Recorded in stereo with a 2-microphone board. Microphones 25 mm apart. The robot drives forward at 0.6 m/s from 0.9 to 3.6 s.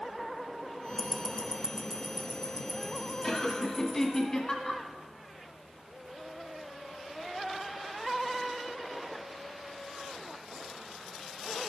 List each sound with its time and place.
1.0 s ticking: 10° right (ahead or behind), 0.6 m; by 4.2 s 5° right (ahead or behind), 2 m
3.2 s laughter: 25° left (ahead or behind), 1.4 m; by 4.8 s 30° left (ahead or behind), 1.3 m